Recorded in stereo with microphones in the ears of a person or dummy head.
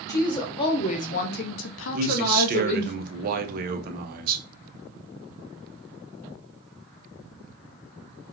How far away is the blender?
No blender in this recording.